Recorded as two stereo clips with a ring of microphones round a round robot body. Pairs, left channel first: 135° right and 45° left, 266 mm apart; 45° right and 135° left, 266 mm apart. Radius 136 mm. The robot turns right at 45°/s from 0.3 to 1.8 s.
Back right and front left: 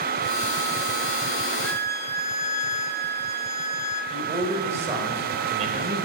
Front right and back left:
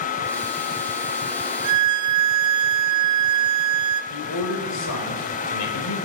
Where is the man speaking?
20° right, 2 m.